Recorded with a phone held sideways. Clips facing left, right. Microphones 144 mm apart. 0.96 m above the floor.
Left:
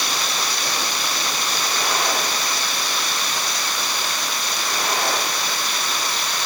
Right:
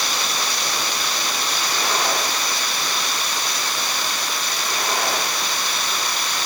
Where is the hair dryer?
I don't hear a hair dryer.